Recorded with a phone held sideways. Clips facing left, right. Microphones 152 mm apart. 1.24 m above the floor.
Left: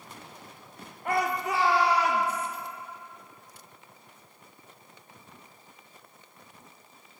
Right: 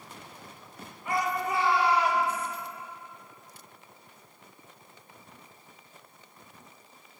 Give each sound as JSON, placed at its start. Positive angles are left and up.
{"t": 1.1, "sound": "a shout", "side_deg": 55, "distance_m": 1.5}